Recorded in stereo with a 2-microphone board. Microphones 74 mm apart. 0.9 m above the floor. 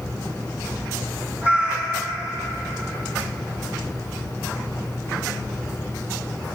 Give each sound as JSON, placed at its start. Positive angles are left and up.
{"t": 1.4, "sound": "a cat meowing", "side_deg": -30, "distance_m": 3.5}